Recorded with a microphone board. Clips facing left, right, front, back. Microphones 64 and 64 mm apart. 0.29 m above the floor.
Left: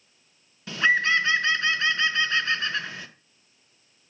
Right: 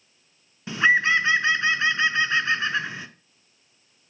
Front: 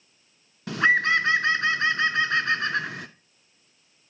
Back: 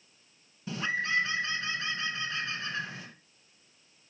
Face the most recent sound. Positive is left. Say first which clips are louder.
# right 2 dB, front 10 dB
turn(degrees=-20)